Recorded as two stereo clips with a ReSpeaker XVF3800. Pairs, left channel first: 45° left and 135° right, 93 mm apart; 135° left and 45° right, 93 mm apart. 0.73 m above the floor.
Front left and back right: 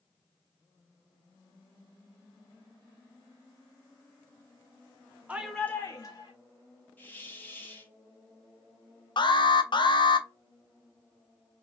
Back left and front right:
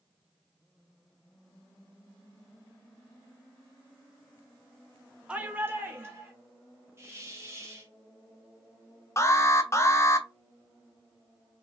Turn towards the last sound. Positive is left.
turn(degrees=75)